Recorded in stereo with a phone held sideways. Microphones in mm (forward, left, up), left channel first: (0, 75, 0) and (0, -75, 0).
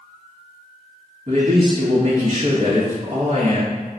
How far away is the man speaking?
About 1.3 m.